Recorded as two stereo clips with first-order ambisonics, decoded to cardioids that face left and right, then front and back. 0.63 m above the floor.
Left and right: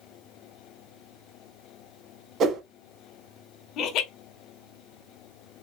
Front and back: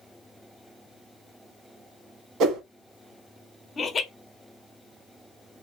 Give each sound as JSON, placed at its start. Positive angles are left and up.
{"t": 2.4, "sound": "a whoosh", "azimuth_deg": -140, "distance_m": 0.9}
{"t": 3.8, "sound": "laughter", "azimuth_deg": 70, "distance_m": 0.9}